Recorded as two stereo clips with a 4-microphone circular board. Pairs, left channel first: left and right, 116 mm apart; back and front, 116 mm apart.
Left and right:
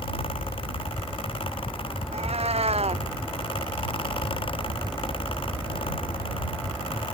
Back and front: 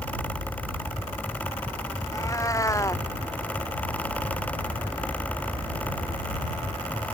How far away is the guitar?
I don't hear a guitar.